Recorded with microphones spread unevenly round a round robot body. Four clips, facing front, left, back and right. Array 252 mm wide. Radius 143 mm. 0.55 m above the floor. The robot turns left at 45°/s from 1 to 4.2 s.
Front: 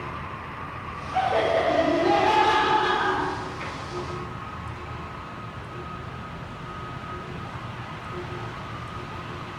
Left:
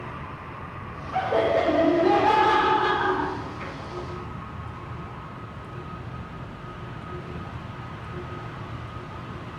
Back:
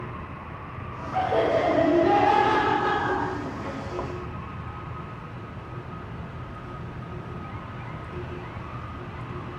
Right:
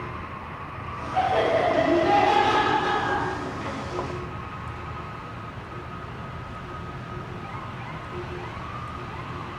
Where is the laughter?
135° left, 6 m; by 3.8 s 15° left, 6 m.